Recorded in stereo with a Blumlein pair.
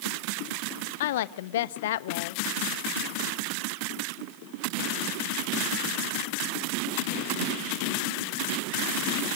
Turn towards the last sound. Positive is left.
turn(degrees=55)